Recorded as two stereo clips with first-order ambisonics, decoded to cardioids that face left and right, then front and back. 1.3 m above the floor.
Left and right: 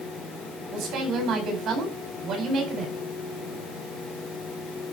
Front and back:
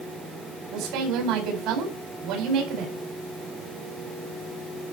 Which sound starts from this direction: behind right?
A woman speaking, at 0.7 s.